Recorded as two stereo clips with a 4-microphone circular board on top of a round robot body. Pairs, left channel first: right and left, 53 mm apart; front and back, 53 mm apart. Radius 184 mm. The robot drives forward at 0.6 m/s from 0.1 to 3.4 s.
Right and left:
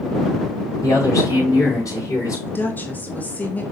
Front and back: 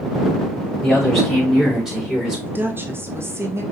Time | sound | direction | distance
0.8 | a man speaking | 85° right | 5 m
2.5 | a woman speaking | 135° right | 1.4 m